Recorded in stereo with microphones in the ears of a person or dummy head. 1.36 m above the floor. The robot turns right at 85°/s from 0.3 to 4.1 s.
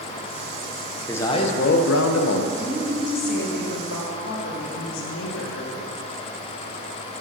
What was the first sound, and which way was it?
A man speaking, 10° left.